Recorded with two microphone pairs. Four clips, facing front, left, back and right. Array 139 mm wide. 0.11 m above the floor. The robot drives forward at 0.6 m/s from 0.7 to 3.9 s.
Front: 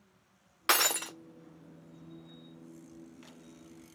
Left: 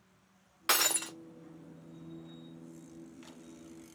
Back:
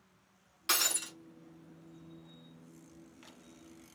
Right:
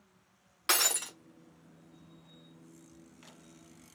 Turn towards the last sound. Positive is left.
turn(degrees=170)